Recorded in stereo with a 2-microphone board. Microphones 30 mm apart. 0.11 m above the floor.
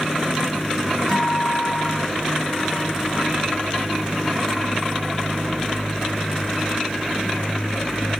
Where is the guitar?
15° left (ahead or behind), 5 m.